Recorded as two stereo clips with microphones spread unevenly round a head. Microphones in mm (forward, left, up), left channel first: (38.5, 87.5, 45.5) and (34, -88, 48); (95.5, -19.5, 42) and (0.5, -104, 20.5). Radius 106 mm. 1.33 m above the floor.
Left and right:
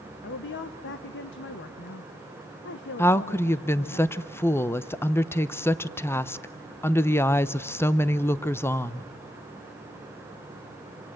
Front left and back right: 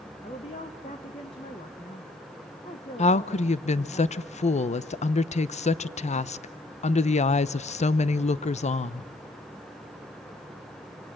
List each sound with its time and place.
0.2 s a woman speaking: 100° left, 1.4 m
3.0 s a woman speaking: 10° left, 0.8 m